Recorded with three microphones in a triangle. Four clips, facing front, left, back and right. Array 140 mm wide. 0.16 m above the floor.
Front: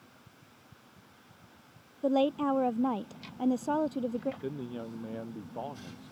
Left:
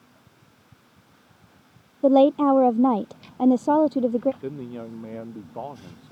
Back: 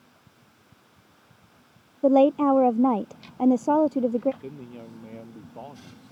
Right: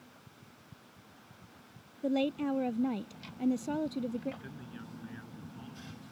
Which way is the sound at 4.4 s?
80° left.